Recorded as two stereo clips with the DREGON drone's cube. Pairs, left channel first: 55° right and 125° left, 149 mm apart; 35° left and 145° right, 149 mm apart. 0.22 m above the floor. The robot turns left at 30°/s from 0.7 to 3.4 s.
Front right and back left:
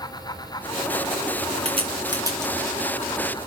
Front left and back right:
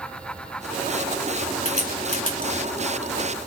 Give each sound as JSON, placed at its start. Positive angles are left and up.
{"t": 1.6, "sound": "a crack", "azimuth_deg": 75, "distance_m": 3.0}